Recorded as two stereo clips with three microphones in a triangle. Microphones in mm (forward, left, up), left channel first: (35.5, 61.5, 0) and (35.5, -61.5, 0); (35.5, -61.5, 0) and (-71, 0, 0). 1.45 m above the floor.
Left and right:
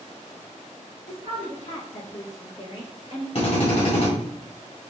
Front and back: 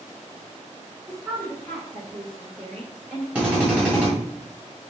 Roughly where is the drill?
Left.